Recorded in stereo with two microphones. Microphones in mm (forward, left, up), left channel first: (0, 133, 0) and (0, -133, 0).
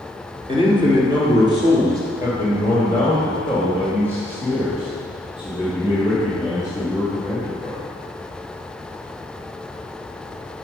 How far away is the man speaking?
About 1.7 m.